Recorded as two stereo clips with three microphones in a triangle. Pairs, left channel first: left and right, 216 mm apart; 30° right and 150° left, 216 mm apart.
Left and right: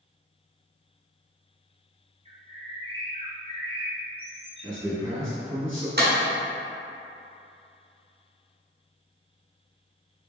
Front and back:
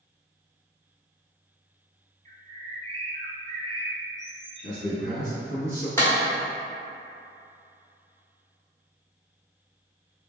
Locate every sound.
2.2 s a bird: 150° right, 0.8 m
4.6 s a man speaking: 175° left, 1.7 m
6.0 s a clap: 105° right, 1.3 m